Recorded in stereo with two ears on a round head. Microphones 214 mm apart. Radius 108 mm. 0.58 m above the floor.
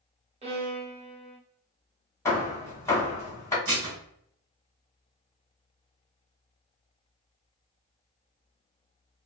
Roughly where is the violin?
Right.